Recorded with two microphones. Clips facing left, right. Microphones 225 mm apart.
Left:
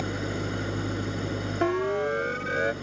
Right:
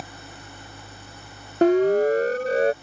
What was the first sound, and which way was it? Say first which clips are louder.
An engine running: left 13 dB; 75° left (ahead or behind).